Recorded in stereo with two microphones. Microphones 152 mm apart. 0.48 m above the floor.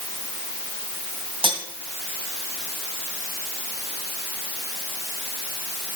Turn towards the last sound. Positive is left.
turn(degrees=-35)  # may be behind; listen again after turning